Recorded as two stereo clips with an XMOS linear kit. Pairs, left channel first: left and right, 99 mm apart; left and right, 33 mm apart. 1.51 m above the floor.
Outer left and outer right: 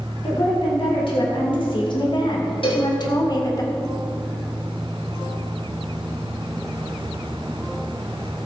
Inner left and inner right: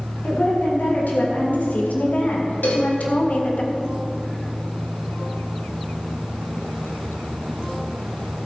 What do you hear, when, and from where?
0.2 s a woman speaking: 70° left (ahead or behind), 3 m; by 3.6 s 40° left (ahead or behind), 1.7 m
2.6 s a cowbell: 70° left (ahead or behind), 2 m